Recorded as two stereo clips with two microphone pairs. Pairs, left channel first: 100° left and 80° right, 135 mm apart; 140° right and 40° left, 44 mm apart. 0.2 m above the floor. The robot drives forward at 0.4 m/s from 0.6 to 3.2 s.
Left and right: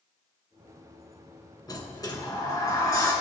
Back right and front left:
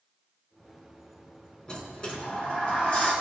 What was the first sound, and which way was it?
A sliding door, 155° left.